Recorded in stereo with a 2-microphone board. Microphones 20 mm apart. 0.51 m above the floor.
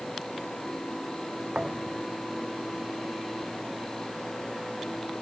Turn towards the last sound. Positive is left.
turn(degrees=-45)  # may be behind; listen again after turning